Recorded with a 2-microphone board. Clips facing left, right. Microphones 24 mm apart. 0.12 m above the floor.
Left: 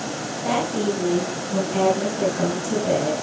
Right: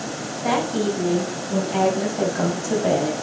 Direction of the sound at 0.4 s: 20° right (ahead or behind).